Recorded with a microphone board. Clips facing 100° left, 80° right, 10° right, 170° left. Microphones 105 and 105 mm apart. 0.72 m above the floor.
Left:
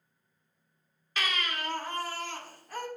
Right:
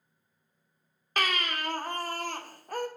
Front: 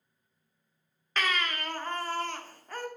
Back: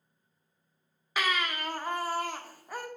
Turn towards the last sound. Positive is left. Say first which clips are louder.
# right 3 dB, even
turn(degrees=-110)